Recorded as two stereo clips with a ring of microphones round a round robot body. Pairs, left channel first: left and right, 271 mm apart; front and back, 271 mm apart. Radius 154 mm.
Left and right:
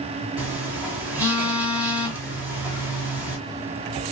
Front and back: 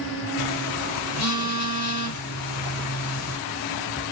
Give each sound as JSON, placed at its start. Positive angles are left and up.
{"t": 0.4, "sound": "a phone buzzing", "azimuth_deg": -5, "distance_m": 1.3}